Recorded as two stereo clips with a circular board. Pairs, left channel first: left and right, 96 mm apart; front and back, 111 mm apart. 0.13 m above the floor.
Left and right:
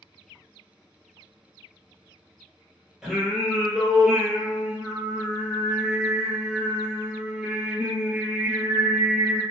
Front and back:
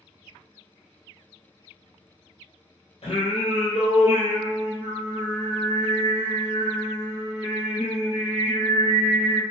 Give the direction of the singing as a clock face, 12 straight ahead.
12 o'clock.